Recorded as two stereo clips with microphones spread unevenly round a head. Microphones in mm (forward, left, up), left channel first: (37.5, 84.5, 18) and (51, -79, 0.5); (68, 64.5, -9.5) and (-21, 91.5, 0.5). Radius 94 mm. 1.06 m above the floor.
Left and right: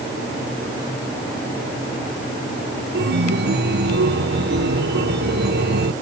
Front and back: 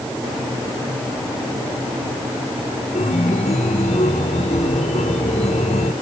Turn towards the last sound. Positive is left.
turn(degrees=-65)